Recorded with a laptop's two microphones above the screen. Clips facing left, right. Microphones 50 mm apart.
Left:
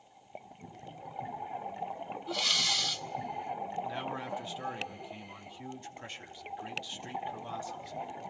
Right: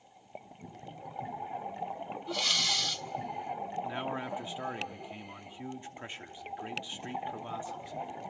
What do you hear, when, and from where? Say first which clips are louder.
2.3 s breathing: even; centre (ahead or behind), 0.7 m
3.8 s a man speaking: right 1 dB; 25° right (ahead or behind), 2.5 m